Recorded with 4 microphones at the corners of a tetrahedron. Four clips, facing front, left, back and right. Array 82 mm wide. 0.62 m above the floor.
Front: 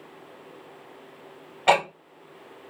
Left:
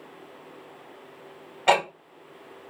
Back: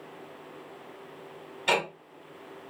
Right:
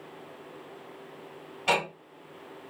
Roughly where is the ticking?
Ahead left.